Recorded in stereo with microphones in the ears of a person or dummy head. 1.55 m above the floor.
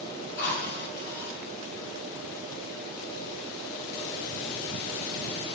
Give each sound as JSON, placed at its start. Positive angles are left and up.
{"t": 0.4, "sound": "a drill", "side_deg": 60, "distance_m": 7.5}